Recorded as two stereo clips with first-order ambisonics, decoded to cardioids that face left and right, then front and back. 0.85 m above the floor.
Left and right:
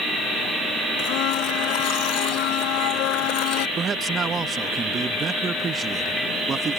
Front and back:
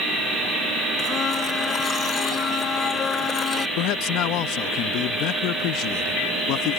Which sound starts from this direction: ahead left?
A blender, at 1.0 s.